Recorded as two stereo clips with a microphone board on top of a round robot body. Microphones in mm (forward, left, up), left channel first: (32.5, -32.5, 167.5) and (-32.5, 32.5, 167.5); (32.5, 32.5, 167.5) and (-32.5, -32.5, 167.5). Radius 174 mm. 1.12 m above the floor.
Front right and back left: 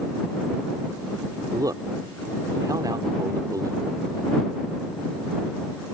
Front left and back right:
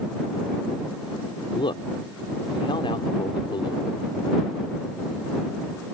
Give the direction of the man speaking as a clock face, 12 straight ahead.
9 o'clock.